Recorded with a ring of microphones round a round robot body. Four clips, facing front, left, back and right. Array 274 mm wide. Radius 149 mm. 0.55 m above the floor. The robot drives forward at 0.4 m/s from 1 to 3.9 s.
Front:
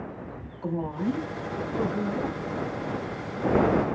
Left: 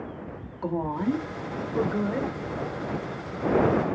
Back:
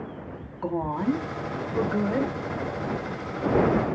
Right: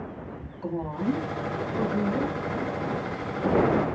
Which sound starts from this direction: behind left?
A woman speaking, at 0.6 s.